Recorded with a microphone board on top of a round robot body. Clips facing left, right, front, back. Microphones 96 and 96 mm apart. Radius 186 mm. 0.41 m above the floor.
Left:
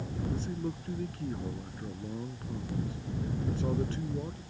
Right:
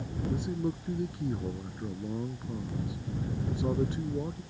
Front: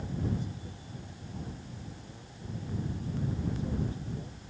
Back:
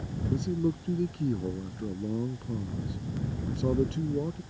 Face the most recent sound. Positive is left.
turn(degrees=-165)